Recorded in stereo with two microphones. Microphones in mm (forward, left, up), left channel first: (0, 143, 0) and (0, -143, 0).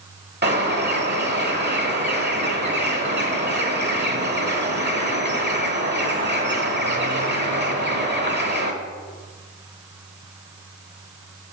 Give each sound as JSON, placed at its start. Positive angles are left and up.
{"t": 0.4, "sound": "a bird", "side_deg": -35, "distance_m": 1.1}